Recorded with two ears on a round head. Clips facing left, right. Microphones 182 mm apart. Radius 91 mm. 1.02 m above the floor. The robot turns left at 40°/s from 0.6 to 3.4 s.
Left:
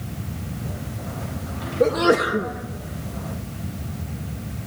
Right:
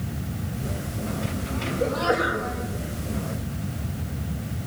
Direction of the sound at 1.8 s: 65° left (ahead or behind).